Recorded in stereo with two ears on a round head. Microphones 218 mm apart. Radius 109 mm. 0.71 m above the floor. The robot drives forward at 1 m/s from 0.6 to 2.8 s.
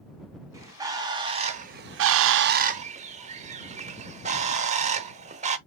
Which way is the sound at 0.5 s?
15° right (ahead or behind).